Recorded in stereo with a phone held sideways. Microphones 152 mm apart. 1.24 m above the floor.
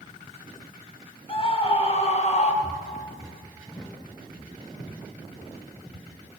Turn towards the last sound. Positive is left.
turn(degrees=35)  # may be behind; listen again after turning